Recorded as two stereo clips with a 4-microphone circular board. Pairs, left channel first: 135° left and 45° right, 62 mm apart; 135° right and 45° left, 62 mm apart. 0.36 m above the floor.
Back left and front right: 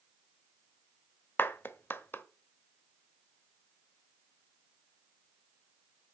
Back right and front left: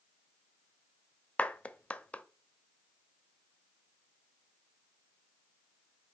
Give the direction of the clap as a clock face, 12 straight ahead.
6 o'clock.